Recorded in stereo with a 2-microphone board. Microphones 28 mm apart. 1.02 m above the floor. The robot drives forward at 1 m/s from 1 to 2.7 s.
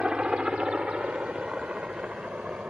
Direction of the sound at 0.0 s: 35° right (ahead or behind).